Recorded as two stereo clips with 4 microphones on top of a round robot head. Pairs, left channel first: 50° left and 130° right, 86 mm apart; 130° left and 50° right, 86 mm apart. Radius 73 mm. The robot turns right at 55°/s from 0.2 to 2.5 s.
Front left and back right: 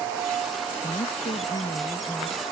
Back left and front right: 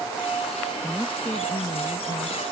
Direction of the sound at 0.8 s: 40° left.